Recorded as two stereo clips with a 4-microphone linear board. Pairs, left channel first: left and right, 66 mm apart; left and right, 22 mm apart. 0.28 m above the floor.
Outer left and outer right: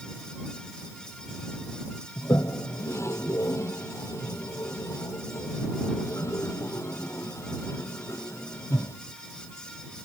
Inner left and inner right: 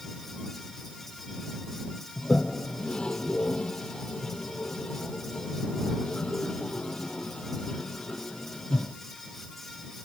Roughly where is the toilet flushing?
Left.